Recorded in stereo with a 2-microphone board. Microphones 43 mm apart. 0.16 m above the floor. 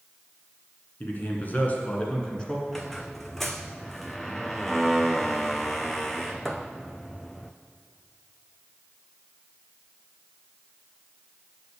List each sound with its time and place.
1.0 s a man speaking: 50° left (ahead or behind), 1.9 m; by 2.6 s 15° left (ahead or behind), 1.9 m
2.7 s a squeak: 5° left (ahead or behind), 0.6 m